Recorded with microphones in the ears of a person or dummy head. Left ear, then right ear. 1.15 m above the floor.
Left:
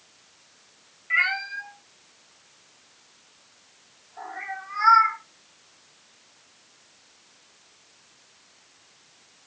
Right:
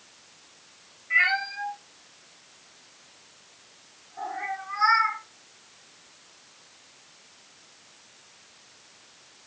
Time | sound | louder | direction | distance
1.1 | a cat meowing | right 1 dB | 20° left (ahead or behind) | 0.9 m